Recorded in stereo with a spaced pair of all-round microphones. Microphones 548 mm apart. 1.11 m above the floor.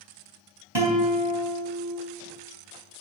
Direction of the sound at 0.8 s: 50° right (ahead or behind).